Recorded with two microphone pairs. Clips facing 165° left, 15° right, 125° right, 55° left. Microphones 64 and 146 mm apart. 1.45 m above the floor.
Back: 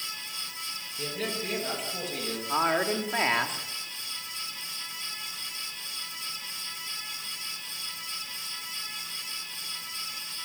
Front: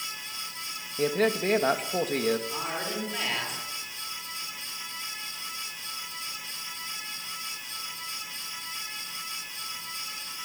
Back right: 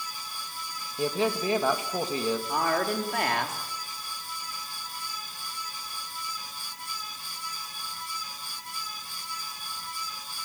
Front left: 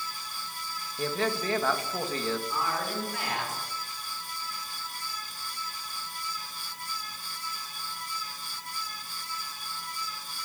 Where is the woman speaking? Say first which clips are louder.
Back 7 dB, back right 5 dB; 150° right, 3.5 m.